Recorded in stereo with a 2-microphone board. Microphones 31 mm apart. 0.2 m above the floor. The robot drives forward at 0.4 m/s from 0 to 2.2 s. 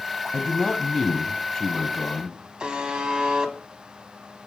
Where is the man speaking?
20° left (ahead or behind), 1.3 m; by 2.4 s 15° left (ahead or behind), 1.5 m.